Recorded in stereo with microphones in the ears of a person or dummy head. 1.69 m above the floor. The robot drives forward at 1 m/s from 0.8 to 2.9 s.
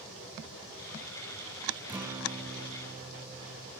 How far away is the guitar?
About 1.0 m.